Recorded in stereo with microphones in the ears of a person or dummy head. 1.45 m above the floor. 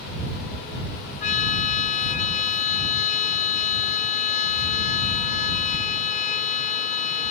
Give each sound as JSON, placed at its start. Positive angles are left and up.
{"t": 1.2, "sound": "a trumpet", "side_deg": 40}